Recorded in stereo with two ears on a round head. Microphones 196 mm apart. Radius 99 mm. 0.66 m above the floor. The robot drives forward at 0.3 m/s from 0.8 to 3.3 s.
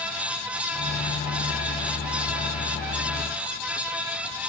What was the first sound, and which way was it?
Only background noise.